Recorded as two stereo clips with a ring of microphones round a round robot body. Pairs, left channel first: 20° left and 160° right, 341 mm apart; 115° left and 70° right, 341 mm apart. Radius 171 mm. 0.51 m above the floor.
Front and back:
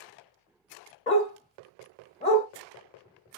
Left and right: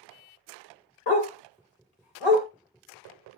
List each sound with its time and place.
1.1 s a dog barking: 95° left, 0.8 m